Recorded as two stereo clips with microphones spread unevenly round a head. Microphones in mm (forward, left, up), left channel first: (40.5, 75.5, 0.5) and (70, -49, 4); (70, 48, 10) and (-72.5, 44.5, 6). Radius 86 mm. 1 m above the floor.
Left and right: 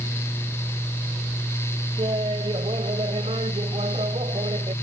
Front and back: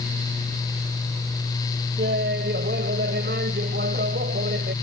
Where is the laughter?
140° right.